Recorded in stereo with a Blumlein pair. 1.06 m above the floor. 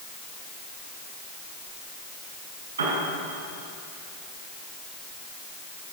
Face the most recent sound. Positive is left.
turn(degrees=-70)